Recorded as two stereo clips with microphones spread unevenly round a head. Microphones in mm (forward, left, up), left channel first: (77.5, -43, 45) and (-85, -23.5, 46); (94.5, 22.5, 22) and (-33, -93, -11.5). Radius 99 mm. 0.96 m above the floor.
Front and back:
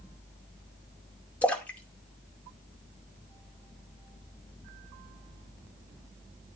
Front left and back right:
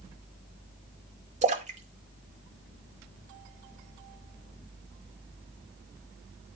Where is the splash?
90° right, 2 m.